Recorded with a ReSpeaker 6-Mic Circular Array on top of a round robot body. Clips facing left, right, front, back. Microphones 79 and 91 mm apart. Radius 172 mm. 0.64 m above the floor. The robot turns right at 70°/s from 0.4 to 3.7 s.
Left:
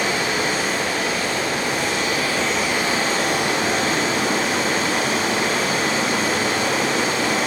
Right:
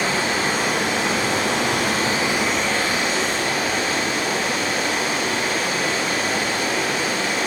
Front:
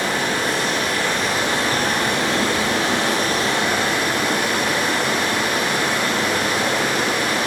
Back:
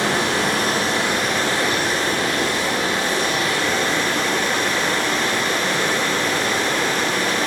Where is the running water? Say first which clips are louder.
Even, back 1 dB; 150° right, 7 m; by 7.5 s 80° left, 7 m.